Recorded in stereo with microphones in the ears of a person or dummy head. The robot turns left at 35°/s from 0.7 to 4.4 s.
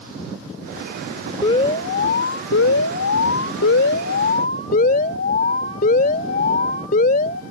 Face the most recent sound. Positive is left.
turn(degrees=45)